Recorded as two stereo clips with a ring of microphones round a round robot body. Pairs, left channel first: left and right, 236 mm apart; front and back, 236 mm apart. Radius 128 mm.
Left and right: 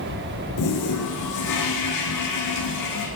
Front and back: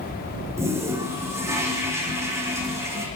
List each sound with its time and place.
0.6 s a toilet flushing: 100° left, 8.5 m